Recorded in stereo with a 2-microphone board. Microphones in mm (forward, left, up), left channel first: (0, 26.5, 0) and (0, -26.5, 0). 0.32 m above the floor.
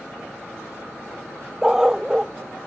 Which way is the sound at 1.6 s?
10° right (ahead or behind).